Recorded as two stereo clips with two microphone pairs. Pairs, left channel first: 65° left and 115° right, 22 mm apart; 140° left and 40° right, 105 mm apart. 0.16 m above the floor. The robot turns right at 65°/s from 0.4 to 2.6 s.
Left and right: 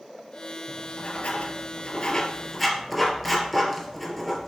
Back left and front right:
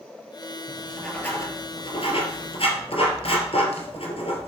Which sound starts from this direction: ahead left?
Writing, at 0.7 s.